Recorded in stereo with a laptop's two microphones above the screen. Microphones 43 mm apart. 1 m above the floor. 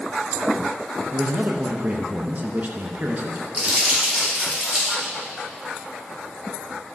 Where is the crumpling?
30° right (ahead or behind), 3.5 m.